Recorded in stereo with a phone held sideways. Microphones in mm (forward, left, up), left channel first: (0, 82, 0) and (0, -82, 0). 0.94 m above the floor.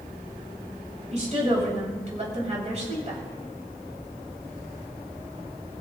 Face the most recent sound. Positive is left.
turn(degrees=-45)  # may be behind; listen again after turning